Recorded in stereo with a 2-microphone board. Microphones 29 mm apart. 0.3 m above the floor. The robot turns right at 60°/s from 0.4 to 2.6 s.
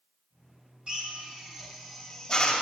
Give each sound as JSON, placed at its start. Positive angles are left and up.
{"t": 0.9, "sound": "a drill", "side_deg": -35, "distance_m": 1.9}